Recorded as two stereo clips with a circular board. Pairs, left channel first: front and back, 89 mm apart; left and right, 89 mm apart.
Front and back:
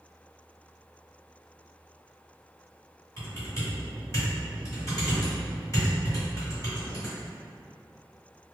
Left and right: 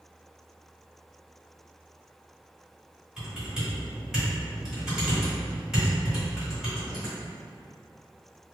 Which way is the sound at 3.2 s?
10° right.